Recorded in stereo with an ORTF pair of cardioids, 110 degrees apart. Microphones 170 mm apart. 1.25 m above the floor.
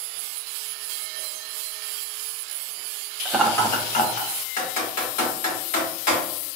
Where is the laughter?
5° right, 1.0 m; by 4.3 s 65° left, 1.3 m.